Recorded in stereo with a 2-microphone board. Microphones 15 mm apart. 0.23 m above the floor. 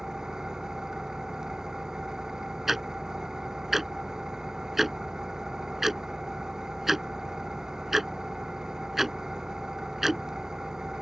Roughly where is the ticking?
Centre.